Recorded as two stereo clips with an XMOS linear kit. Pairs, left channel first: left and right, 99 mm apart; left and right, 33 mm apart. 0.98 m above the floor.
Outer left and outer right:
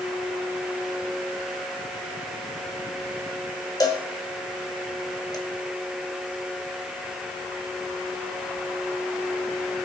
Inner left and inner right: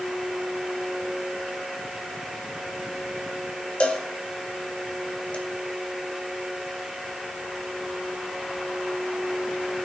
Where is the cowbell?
40° left (ahead or behind), 2 m.